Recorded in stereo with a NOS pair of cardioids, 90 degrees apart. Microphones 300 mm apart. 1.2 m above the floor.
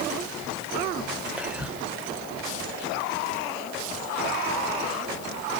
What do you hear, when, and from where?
1.4 s whispering: 5° right, 0.6 m